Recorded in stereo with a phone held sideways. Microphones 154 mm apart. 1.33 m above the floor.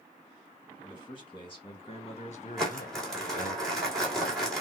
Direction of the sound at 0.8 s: 30° left (ahead or behind).